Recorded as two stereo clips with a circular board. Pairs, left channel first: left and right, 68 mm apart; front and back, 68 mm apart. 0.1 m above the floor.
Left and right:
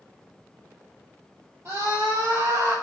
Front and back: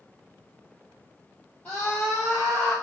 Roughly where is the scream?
Ahead right.